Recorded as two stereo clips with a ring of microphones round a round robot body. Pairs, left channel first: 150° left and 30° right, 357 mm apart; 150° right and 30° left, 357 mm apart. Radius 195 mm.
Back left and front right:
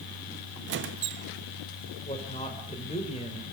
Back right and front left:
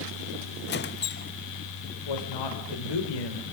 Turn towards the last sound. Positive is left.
turn(degrees=-135)